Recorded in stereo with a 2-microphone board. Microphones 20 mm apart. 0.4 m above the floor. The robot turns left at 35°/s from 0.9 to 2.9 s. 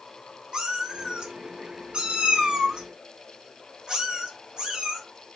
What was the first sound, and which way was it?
A cat meowing, 45° right (ahead or behind).